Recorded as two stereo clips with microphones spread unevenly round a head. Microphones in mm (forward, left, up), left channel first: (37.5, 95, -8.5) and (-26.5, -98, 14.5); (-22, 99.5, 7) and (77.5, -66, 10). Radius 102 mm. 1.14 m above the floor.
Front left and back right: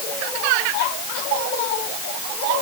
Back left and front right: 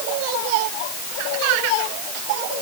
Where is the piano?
I don't hear a piano.